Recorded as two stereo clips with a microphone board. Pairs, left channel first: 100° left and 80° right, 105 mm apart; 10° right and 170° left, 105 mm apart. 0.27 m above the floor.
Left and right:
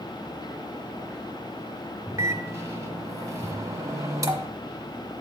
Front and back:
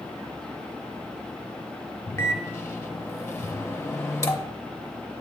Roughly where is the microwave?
Ahead right.